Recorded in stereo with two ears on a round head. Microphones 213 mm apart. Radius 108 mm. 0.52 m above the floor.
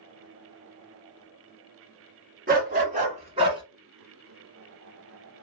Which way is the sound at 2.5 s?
45° right (ahead or behind).